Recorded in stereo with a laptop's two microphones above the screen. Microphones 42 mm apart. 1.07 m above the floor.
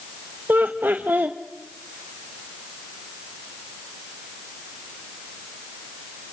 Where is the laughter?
50° right (ahead or behind), 1.1 m.